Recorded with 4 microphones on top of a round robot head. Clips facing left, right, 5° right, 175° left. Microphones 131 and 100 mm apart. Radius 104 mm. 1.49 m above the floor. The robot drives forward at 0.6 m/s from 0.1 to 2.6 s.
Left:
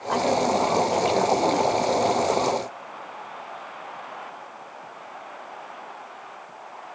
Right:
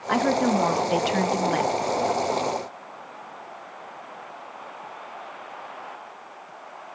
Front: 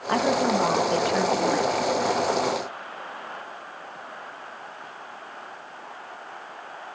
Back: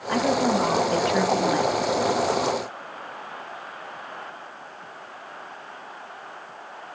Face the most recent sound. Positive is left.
turn(degrees=-120)